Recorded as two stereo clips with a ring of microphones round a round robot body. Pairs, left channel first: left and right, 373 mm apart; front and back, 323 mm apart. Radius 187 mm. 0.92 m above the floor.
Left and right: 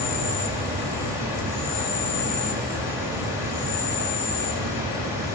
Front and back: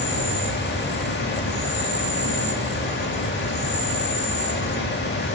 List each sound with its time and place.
0.0 s an insect: 60° left, 3.5 m